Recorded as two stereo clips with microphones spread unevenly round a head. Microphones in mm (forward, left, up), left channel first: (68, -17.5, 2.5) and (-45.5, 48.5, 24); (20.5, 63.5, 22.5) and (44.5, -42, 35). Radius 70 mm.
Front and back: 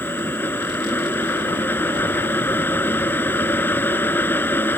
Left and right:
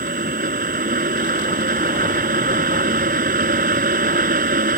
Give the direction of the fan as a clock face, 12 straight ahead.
4 o'clock.